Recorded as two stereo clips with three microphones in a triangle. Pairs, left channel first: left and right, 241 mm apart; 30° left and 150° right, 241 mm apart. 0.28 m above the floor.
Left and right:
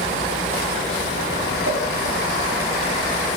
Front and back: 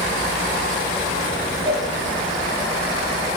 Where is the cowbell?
85° left, 2.5 m.